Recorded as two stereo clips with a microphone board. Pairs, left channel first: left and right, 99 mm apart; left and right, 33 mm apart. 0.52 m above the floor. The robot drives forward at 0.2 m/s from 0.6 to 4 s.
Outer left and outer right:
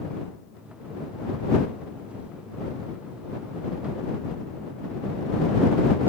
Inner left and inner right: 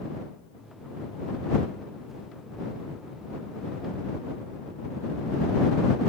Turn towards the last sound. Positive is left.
No sound to turn to.